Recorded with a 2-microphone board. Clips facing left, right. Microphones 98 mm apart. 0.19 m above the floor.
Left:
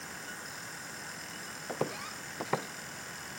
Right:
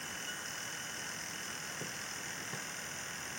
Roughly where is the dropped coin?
No dropped coin in this recording.